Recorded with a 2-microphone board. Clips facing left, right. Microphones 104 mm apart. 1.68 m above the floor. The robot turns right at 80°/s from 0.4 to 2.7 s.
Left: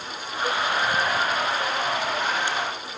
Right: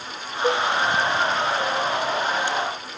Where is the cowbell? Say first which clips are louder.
Right 5 dB; 40° right (ahead or behind), 1.2 m; by 0.7 s 45° right (ahead or behind), 1.2 m.